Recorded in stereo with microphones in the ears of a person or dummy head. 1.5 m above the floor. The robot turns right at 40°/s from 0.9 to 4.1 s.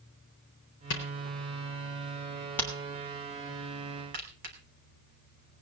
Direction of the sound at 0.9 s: 70° left (ahead or behind).